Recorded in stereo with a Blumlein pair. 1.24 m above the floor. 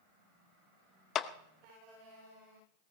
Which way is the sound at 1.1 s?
30° left.